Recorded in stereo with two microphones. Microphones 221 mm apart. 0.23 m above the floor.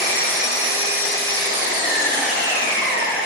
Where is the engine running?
45° left (ahead or behind), 1.1 m.